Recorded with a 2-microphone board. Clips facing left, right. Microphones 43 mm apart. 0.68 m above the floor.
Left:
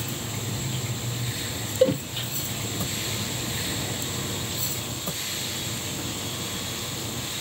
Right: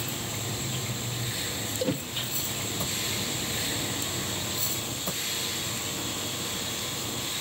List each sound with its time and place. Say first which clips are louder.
1.8 s a cowbell: left 9 dB; 30° left (ahead or behind), 0.5 m